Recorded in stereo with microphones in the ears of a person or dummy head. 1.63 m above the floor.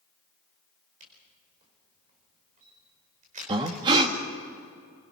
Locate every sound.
1.0 s a camera shutter: 40° right (ahead or behind), 4 m
3.5 s breathing: 25° right (ahead or behind), 1.7 m